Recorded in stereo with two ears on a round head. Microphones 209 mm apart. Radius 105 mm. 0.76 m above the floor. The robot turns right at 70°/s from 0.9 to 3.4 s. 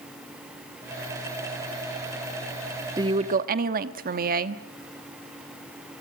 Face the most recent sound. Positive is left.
turn(degrees=-130)